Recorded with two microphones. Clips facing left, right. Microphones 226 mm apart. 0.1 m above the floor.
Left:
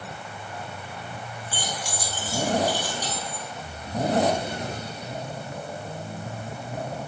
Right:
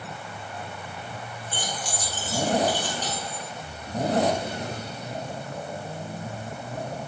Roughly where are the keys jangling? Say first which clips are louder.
Even; centre.